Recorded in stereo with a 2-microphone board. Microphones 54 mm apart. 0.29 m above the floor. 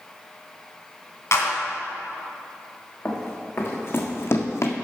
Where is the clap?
60° left (ahead or behind), 2 m.